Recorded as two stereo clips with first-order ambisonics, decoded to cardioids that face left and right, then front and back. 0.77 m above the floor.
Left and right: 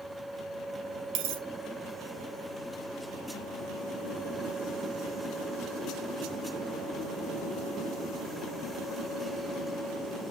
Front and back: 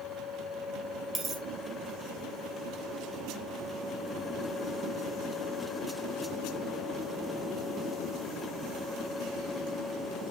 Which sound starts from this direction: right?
A dropped coin, at 1.1 s.